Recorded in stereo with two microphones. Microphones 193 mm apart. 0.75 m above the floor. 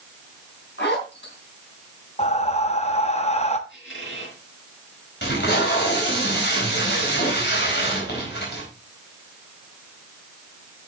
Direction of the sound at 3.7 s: 75° left (ahead or behind).